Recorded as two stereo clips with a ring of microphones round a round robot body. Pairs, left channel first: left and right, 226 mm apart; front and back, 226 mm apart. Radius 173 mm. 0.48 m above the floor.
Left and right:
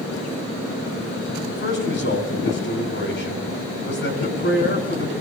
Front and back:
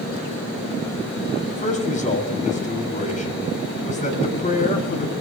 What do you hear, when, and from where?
1.5 s a man speaking: 55° left, 5.5 m